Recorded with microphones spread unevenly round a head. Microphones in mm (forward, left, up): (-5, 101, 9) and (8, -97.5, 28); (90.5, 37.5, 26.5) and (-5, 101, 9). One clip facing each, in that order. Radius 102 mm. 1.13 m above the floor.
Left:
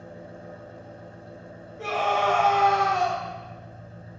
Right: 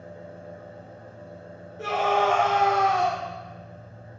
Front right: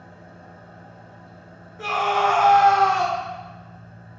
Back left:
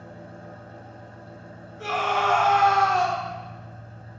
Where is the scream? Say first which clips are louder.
Right 2 dB, front right 3 dB; 5° right, 1.7 m.